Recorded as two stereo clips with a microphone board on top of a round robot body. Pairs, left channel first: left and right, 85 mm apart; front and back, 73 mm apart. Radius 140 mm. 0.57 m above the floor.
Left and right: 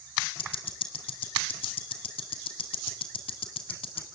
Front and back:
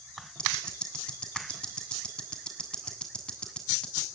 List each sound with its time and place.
0.4 s ticking: 80° left, 1.9 m